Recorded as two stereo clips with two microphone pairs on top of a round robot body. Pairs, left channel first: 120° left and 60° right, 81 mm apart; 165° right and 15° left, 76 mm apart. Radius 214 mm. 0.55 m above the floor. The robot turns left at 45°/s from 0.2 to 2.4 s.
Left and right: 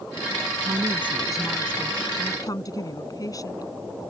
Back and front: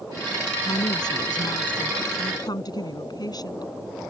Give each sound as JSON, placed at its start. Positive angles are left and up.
{"t": 0.7, "sound": "a woman speaking", "azimuth_deg": -120}